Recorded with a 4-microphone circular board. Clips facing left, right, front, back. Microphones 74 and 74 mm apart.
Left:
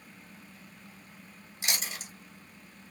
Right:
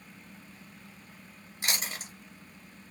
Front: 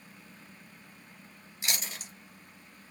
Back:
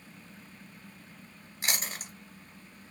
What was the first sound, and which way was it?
Chewing, 140° right.